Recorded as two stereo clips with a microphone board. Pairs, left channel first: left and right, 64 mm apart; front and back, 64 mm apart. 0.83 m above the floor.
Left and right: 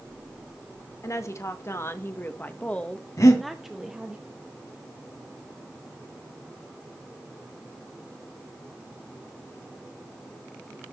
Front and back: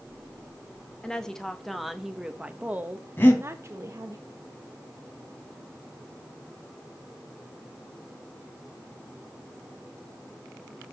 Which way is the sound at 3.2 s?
60° left.